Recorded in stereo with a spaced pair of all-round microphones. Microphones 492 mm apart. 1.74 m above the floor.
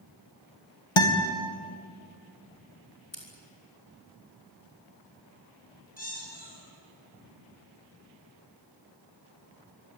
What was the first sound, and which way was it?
A guitar, 75° left (ahead or behind).